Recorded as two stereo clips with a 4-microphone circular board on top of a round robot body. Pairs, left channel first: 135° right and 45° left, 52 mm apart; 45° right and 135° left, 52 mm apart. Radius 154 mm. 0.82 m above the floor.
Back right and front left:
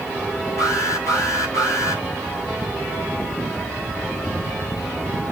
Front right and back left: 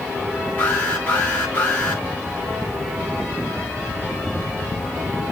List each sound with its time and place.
0.6 s an alarm: 110° right, 6.5 m